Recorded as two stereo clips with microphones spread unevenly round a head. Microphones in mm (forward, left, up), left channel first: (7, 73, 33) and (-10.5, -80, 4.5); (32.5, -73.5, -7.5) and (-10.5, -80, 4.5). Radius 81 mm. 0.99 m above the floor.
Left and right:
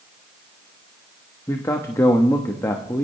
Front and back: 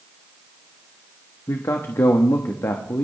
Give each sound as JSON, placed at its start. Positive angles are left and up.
{"t": 1.5, "sound": "a man speaking", "azimuth_deg": 10, "distance_m": 1.2}